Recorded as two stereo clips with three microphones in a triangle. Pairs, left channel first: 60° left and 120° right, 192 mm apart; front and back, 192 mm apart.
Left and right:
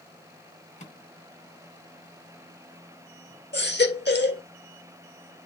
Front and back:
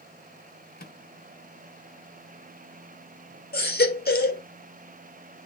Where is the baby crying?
35° left, 1.8 m.